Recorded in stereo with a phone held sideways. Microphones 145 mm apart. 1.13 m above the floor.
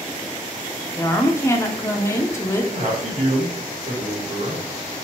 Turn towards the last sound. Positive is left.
turn(degrees=-55)  # may be behind; listen again after turning